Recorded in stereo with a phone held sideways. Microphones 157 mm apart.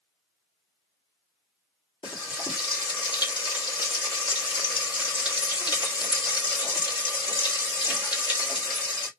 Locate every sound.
2.0 s frying: 30° left (ahead or behind), 2 m